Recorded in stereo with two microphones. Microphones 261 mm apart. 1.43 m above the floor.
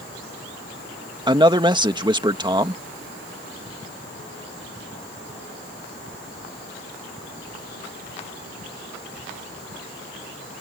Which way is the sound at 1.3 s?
15° right (ahead or behind).